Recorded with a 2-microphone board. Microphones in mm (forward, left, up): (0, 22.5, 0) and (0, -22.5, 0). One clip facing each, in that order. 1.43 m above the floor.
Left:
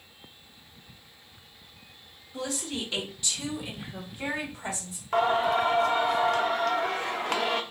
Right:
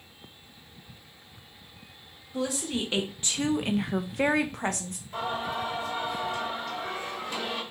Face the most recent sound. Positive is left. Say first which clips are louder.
# left 8 dB
turn(degrees=75)  # may be behind; listen again after turning